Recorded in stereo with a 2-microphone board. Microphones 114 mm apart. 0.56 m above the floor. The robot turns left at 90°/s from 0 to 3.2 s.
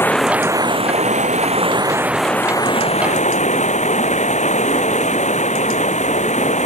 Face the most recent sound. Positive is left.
turn(degrees=95)